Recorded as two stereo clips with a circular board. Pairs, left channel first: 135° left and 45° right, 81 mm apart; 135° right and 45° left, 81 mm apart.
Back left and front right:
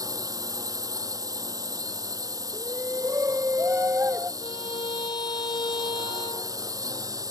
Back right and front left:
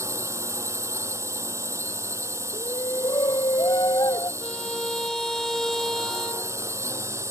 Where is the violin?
140° left.